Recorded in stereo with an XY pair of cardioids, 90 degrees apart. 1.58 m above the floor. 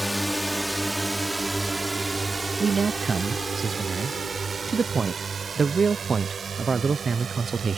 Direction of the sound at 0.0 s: Straight ahead.